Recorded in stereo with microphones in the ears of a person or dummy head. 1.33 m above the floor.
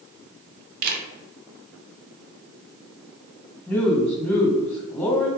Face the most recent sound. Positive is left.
turn(degrees=10)  # may be behind; listen again after turning